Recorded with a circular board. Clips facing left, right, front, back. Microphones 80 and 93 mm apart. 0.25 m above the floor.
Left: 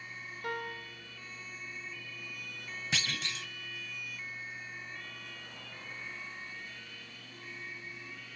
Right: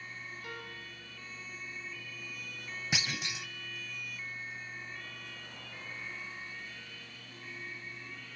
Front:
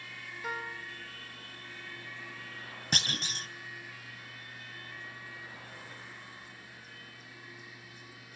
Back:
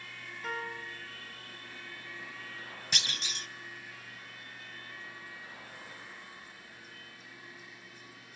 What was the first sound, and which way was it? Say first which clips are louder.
A piano: left 6 dB, back 1 dB; 85° left.